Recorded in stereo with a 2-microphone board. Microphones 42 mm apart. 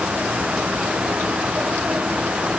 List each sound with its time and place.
Only background noise.